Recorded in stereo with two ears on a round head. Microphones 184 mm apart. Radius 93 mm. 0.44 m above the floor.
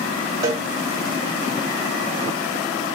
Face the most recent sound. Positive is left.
turn(degrees=-20)  # may be behind; listen again after turning